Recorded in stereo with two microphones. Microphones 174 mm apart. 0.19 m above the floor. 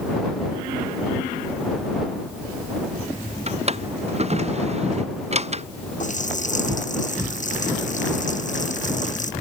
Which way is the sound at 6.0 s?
45° left (ahead or behind).